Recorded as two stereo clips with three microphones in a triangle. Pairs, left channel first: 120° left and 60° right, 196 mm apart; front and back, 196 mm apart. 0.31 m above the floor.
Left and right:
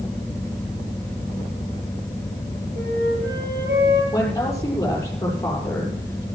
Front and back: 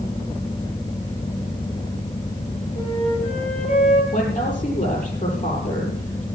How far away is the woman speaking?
About 8 m.